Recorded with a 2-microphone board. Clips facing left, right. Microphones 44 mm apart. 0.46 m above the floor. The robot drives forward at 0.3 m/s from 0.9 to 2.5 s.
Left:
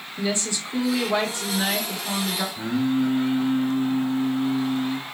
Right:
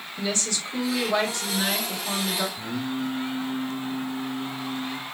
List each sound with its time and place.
0.2 s a woman speaking: 20° left (ahead or behind), 0.8 m; by 2.5 s 15° left (ahead or behind), 1.0 m
2.5 s singing: 55° left (ahead or behind), 1.0 m